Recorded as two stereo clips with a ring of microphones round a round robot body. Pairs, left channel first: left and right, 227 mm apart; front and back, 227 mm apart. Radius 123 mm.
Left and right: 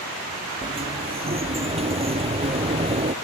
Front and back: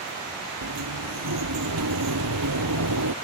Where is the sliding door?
155° right.